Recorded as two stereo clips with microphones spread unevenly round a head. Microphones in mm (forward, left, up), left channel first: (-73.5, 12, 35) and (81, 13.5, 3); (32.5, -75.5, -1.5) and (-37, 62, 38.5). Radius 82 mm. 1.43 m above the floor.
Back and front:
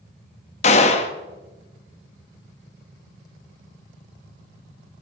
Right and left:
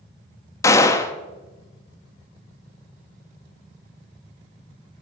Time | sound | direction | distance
0.6 | a gunshot | 140° right | 1.2 m